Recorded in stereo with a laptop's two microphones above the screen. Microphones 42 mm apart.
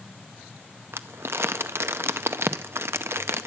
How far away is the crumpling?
About 0.6 m.